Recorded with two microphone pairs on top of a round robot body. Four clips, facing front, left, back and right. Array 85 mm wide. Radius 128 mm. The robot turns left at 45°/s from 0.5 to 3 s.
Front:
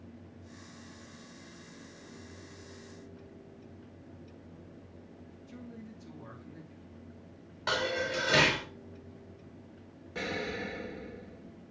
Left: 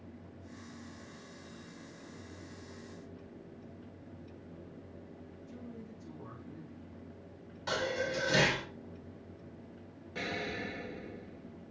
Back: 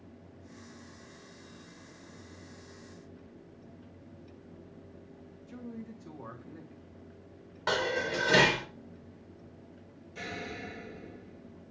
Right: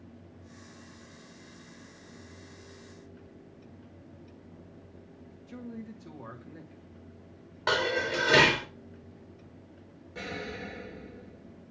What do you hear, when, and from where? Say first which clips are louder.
5.5 s a man speaking: right 7 dB, back 4 dB; 115° right, 1.7 m
7.7 s dishes clattering: right 6 dB, back 1 dB; 110° right, 2.5 m
10.2 s an explosion: even, front 5 dB; 15° left, 1.7 m